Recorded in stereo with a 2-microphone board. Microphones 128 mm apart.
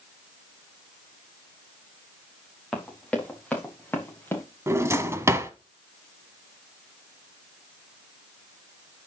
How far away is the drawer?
About 1.4 m.